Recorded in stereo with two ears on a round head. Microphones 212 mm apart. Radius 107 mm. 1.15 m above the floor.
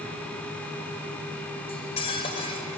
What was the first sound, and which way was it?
Cutlery clinking, 25° left (ahead or behind).